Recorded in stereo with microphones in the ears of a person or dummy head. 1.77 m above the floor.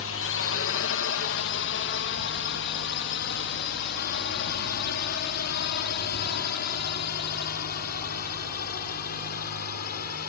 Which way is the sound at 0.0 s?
65° left (ahead or behind).